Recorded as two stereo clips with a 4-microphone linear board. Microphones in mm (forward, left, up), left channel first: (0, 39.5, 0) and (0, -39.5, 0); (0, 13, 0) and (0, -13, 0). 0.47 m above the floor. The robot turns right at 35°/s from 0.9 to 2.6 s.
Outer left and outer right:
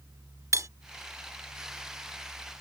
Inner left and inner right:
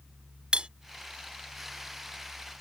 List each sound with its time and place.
0.5 s cutlery clinking: 40° right (ahead or behind)